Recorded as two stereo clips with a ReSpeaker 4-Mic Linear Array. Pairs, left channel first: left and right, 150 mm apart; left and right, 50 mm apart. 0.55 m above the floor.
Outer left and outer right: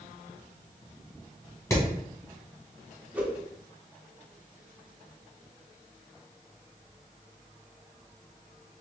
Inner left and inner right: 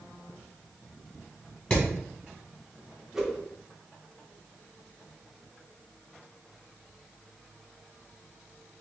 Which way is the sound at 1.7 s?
20° left (ahead or behind).